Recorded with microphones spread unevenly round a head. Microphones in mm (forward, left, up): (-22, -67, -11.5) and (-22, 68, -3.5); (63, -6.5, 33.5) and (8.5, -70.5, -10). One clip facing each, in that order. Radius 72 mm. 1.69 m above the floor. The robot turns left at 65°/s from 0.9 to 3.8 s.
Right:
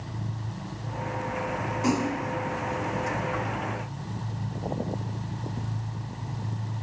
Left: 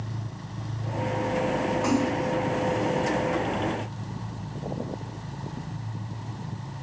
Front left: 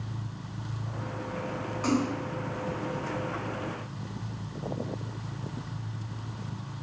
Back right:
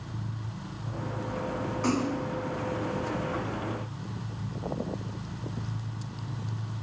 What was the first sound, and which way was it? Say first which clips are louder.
A splash: right 1 dB, front left 1 dB; 15° right.